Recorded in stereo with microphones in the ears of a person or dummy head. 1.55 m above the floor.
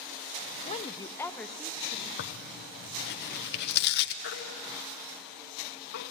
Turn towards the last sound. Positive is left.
turn(degrees=60)  # may be behind; listen again after turning